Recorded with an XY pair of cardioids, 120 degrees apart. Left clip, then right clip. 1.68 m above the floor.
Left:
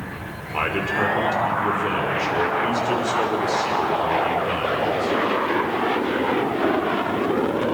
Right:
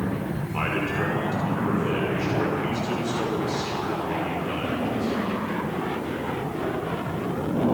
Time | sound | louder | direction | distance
0.5 | a man speaking | left 5 dB | 35° left | 6 m